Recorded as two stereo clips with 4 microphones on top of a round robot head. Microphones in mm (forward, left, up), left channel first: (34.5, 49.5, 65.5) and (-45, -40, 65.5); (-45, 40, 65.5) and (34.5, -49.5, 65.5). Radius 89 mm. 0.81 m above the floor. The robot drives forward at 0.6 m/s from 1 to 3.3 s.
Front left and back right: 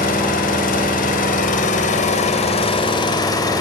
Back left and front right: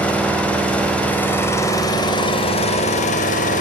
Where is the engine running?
50° left, 1.6 m; by 3.6 s 110° left, 1.3 m.